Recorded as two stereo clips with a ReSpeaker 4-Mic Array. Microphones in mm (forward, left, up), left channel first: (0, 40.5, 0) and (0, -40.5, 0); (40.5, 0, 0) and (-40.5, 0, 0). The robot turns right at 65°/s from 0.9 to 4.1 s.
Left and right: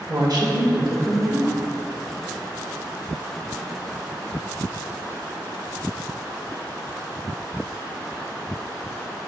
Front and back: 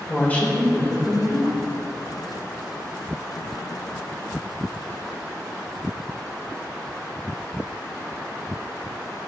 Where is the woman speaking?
70° right, 2 m; by 1.6 s 25° right, 2 m.